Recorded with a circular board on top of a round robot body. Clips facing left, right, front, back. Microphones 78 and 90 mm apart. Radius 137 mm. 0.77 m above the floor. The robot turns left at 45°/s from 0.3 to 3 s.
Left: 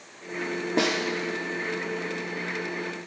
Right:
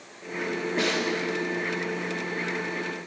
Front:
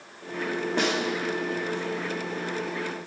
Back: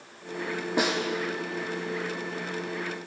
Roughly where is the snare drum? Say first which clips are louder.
Left 3 dB, back 1 dB; left.